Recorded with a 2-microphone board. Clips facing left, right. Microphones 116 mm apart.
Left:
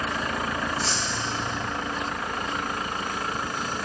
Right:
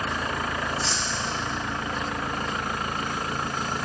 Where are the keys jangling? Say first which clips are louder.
Even; 50° left (ahead or behind), 3.5 m.